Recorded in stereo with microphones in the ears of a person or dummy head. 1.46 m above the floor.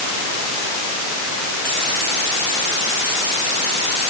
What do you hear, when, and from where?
Only background noise.